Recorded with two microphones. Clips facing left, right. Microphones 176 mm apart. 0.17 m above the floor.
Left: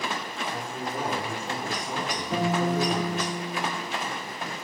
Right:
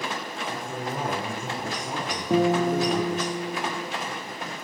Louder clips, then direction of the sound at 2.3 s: Right 5 dB; 50° right (ahead or behind).